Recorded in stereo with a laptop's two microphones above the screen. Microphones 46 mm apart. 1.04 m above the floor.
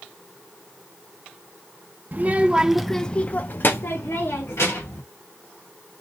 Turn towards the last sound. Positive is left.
turn(degrees=70)  # may be behind; listen again after turning